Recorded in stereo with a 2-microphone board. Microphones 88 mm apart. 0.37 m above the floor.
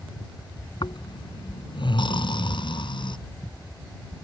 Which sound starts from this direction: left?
Snoring, at 0.8 s.